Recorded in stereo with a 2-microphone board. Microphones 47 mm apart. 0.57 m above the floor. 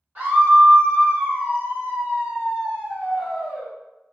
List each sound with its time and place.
0.1 s a scream: 40° right (ahead or behind), 1.5 m